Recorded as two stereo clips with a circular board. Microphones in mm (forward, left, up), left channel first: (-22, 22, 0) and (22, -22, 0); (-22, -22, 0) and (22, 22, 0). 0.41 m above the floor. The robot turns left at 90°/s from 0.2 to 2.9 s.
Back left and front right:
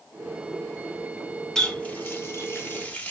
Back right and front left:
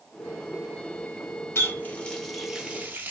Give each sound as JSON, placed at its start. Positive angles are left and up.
{"t": 1.6, "sound": "a running tap", "azimuth_deg": -150, "distance_m": 0.6}